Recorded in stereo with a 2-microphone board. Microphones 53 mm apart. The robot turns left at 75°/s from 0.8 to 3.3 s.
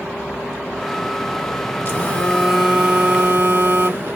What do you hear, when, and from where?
1.9 s a phone buzzing: 45° left, 1.6 m; by 4.2 s 60° right, 1.6 m